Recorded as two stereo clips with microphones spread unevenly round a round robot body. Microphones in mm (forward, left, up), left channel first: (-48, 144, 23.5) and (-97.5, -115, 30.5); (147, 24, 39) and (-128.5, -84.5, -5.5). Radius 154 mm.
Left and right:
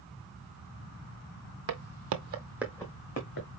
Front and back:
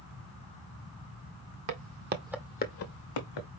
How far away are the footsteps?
About 1.1 m.